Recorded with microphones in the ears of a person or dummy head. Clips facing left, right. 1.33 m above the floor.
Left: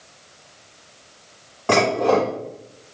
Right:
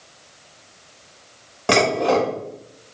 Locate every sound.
1.7 s dishes clattering: 25° right (ahead or behind), 1.2 m